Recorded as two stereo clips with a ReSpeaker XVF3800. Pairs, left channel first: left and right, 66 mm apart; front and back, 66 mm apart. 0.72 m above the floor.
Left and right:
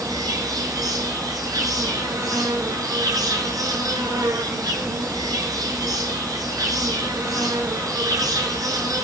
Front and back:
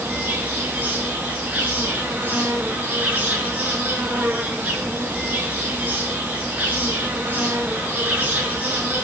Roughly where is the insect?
Behind right.